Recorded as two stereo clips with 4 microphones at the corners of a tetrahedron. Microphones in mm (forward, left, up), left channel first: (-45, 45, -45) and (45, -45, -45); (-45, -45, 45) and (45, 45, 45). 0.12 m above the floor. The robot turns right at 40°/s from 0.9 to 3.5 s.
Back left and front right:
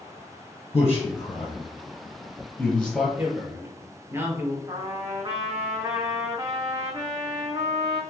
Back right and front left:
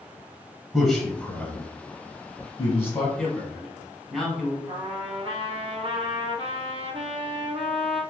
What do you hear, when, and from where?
0.7 s a man speaking: 150° left, 1.1 m; by 3.1 s 120° right, 1.1 m
3.2 s a man speaking: 60° right, 1.1 m; by 4.6 s 50° right, 1.1 m
4.7 s a trumpet: 10° left, 0.8 m